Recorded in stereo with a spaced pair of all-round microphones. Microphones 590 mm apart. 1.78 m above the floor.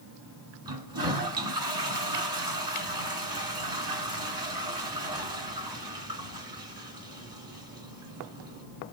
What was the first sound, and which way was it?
A toilet flushing, 35° right (ahead or behind).